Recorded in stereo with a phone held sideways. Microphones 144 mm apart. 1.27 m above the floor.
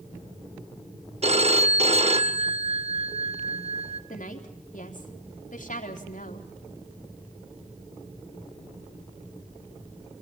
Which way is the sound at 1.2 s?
45° right (ahead or behind).